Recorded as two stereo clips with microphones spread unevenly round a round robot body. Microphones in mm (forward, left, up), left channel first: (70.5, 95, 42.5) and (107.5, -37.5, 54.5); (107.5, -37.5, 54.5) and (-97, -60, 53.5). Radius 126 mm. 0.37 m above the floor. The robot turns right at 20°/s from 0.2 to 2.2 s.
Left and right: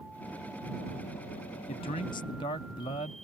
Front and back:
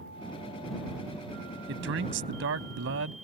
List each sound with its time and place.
1.7 s a man speaking: 155° left; by 3.1 s 165° left